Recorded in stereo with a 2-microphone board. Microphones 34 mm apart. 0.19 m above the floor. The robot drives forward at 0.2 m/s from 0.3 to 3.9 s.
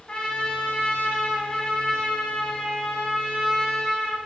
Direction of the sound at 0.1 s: 30° left (ahead or behind).